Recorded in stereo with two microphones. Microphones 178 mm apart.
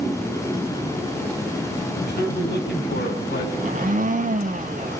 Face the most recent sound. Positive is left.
turn(degrees=-45)  # may be behind; listen again after turning